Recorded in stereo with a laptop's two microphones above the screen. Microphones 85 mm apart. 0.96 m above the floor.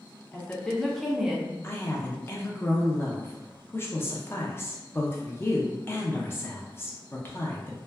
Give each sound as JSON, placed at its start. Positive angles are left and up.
{"t": 0.3, "sound": "a woman speaking", "side_deg": 20, "distance_m": 0.5}
{"t": 1.6, "sound": "a woman speaking", "side_deg": 30, "distance_m": 0.6}